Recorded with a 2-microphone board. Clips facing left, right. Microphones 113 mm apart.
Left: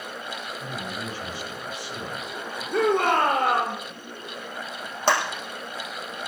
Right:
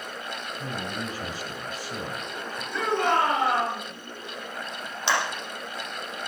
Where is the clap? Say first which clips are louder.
Left 4 dB; 45° left (ahead or behind), 5 m.